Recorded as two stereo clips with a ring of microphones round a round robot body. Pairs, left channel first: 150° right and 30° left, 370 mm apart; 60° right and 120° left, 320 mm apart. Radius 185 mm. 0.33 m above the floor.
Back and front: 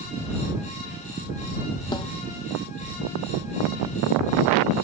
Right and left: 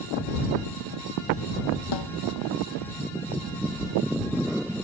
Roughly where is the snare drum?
Right.